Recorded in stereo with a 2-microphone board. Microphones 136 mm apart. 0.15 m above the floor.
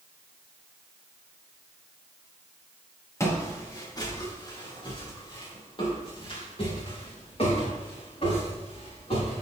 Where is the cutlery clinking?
No cutlery clinking in this recording.